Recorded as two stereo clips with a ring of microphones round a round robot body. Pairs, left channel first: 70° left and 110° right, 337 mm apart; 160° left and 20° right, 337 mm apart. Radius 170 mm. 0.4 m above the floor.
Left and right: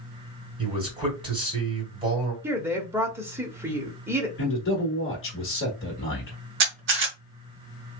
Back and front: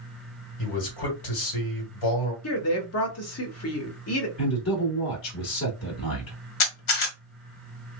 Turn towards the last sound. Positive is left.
turn(degrees=-170)